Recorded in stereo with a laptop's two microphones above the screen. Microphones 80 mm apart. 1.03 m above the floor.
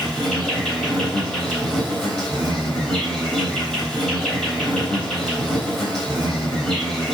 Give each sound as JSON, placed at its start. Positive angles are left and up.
{"t": 0.0, "sound": "an insect", "side_deg": 5, "distance_m": 3.5}